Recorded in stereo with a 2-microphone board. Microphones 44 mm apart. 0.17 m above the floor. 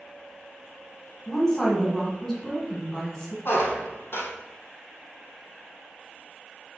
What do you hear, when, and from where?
1.3 s a woman speaking: 15° left (ahead or behind), 1.7 m
3.5 s a squeak: 60° left (ahead or behind), 1.3 m